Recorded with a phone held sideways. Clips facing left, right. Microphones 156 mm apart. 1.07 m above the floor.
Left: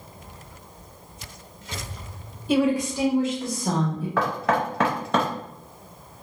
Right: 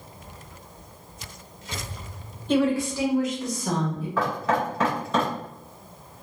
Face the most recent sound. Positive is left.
turn(degrees=70)  # may be behind; listen again after turning